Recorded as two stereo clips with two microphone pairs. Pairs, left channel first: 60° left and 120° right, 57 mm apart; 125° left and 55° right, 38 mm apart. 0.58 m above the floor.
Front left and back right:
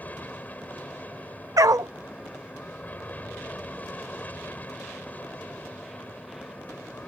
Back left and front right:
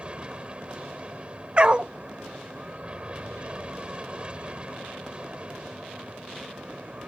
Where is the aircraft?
5° left.